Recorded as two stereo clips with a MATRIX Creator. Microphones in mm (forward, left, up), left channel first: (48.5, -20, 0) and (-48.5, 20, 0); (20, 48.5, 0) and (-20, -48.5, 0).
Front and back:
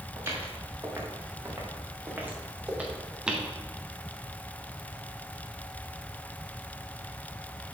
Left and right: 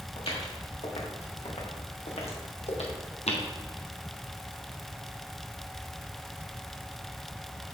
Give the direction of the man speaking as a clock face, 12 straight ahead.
No man speaking in this recording.